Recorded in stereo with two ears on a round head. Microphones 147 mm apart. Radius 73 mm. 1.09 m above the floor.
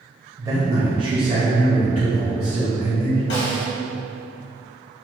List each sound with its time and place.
0.4 s a man speaking: 15° right (ahead or behind), 0.7 m; by 3.2 s 25° right (ahead or behind), 1.5 m
3.3 s a snare drum: 70° left (ahead or behind), 1.0 m